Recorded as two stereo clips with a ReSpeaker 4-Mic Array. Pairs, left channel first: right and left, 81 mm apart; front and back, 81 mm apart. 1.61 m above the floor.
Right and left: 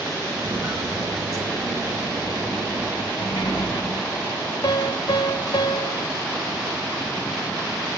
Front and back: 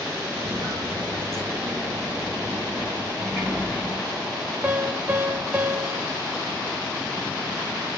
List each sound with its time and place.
0.4 s footsteps: 140° left, 2.5 m; by 3.1 s 120° left, 3.5 m
3.2 s a sliding door: 95° right, 3 m
4.6 s a piano: 115° right, 0.6 m